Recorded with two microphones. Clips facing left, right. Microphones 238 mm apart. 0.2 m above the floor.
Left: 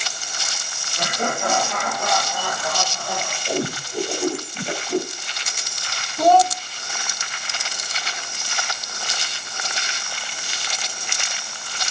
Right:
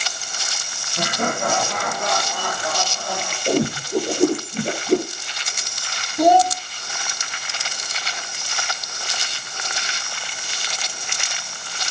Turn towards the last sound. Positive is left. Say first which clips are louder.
# right 1 dB
turn(degrees=-15)  # may be behind; listen again after turning